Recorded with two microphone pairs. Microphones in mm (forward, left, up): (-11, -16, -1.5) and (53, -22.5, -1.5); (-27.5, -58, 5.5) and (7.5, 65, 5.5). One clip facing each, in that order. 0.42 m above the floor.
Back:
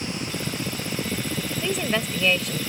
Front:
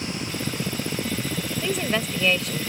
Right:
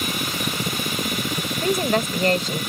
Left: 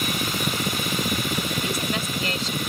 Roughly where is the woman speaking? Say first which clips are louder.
Even, right 6 dB; right.